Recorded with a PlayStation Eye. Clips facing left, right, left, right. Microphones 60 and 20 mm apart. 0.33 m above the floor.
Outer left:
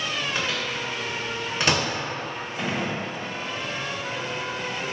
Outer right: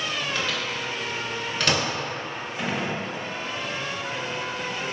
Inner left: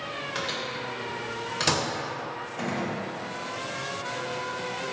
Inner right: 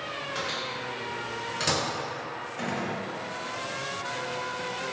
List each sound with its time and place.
0.3 s a microwave: 20° left (ahead or behind), 0.6 m
2.6 s a gunshot: 5° right (ahead or behind), 0.5 m